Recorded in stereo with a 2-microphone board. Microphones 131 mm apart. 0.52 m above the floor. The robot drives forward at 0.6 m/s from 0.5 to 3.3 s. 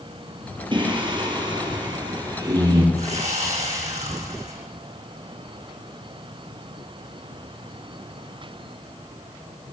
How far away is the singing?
About 5.5 m.